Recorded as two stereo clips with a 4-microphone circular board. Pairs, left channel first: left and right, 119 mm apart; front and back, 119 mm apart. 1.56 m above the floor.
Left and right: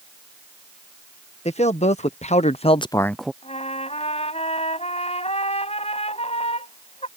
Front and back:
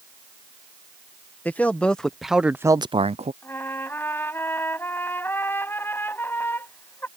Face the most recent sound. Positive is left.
turn(degrees=70)